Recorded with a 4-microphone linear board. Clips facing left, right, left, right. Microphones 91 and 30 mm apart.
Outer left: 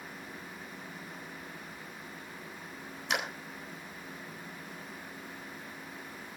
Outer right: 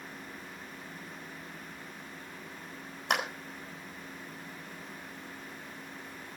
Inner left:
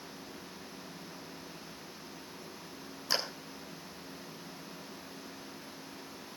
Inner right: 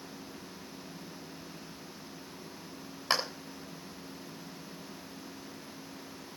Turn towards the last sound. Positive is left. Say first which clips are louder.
# outer right 3 dB, inner right 3 dB
turn(degrees=-55)  # may be behind; listen again after turning